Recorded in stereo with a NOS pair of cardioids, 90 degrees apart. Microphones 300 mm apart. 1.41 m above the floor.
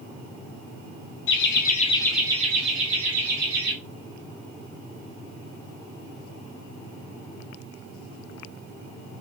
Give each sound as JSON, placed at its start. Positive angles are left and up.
{"t": 1.3, "sound": "laughter", "azimuth_deg": 50, "distance_m": 1.2}